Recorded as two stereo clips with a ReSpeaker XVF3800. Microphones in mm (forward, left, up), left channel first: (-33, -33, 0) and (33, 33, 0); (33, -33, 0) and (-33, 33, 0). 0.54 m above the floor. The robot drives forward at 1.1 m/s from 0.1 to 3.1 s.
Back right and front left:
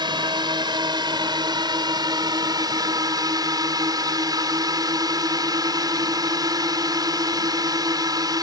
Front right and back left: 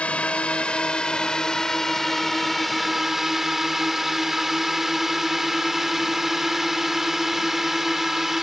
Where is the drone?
30° left; by 8.4 s 50° left.